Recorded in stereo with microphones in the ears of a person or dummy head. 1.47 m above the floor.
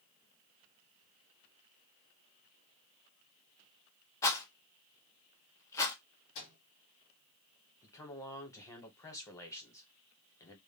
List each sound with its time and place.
4.2 s a rattle: 15° left (ahead or behind), 0.6 m
6.3 s a microwave: 70° left (ahead or behind), 1.2 m
7.8 s a man speaking: 20° left (ahead or behind), 0.8 m